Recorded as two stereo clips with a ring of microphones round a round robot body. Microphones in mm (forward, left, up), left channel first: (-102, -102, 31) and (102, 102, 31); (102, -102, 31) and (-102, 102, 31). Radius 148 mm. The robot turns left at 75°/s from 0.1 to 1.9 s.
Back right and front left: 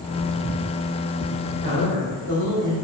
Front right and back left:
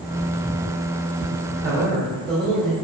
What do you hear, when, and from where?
1.6 s a man speaking: 100° left, 2.5 m; by 2.7 s 75° left, 2.5 m